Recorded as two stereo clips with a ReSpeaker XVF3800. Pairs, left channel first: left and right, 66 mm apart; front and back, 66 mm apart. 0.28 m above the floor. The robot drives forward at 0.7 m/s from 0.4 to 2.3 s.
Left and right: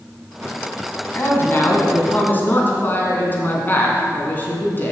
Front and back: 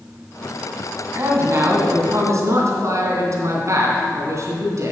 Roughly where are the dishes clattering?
I don't hear dishes clattering.